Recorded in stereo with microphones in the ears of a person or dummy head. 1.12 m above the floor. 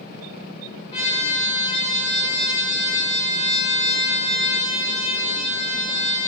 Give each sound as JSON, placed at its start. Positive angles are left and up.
{"t": 0.9, "sound": "a trumpet", "side_deg": 35, "distance_m": 0.7}